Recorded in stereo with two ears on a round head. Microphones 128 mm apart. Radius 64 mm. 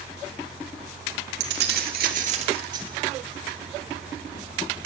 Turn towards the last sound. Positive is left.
turn(degrees=-25)  # may be behind; listen again after turning